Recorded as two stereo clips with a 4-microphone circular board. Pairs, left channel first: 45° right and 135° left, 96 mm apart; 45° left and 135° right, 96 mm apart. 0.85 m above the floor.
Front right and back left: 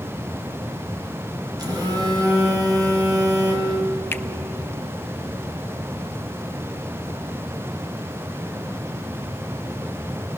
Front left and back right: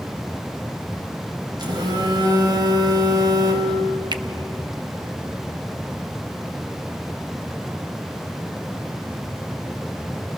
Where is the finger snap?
110° right, 0.6 m.